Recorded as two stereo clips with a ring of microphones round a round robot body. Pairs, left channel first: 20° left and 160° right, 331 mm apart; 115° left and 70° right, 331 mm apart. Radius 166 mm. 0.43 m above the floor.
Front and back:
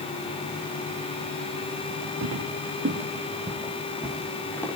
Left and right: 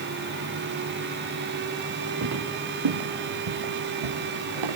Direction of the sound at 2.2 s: 115° right.